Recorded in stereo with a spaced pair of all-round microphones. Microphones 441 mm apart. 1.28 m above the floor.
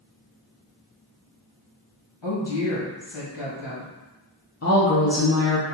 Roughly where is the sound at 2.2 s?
Left.